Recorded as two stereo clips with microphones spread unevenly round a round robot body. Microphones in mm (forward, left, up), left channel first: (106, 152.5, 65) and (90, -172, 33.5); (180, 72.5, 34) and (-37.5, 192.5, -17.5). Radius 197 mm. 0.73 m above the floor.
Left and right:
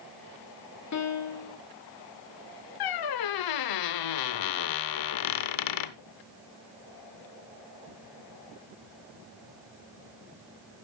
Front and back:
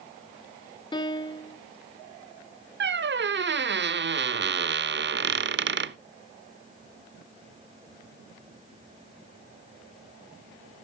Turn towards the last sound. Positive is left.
turn(degrees=95)